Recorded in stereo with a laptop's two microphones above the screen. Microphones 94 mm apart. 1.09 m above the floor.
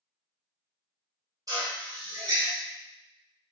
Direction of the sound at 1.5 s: 40° right (ahead or behind).